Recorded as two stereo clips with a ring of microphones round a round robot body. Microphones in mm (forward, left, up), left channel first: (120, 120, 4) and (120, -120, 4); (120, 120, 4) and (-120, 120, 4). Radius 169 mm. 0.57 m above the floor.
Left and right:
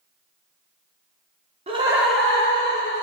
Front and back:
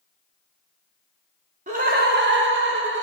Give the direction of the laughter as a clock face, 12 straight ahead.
5 o'clock.